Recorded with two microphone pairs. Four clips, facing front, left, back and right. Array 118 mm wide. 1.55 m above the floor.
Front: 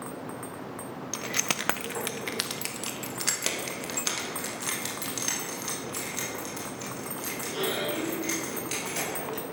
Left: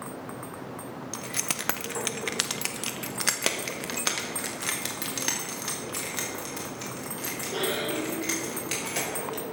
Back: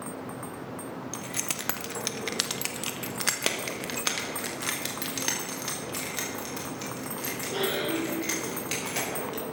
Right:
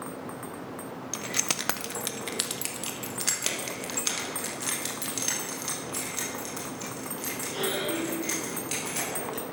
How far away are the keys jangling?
About 0.7 m.